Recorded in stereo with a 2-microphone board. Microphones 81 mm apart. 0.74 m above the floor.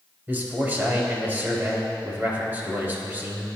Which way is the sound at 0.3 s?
25° right (ahead or behind).